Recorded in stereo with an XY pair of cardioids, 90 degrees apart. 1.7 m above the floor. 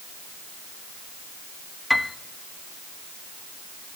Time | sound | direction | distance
1.9 | a piano | 15° left | 1.1 m